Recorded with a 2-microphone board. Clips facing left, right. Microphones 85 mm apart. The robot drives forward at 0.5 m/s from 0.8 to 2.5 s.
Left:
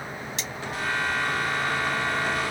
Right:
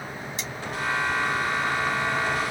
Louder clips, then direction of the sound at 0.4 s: Even; 75° left (ahead or behind).